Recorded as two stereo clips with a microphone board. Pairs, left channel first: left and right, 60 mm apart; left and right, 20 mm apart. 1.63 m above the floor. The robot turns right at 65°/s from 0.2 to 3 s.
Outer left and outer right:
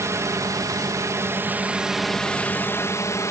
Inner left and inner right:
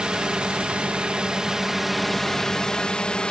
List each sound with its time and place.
0.0 s a drone: 120° right; by 3.3 s 60° left